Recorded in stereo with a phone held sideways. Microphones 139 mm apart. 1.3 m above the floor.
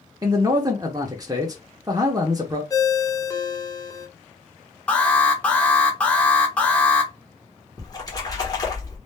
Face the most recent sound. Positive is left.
turn(degrees=25)  # may be behind; listen again after turning